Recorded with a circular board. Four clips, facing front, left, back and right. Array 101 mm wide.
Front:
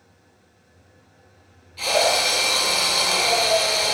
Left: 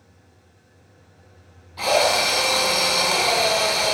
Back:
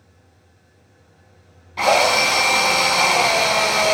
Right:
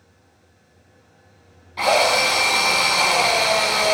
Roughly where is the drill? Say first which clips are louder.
Right 2 dB, back 5 dB; behind right.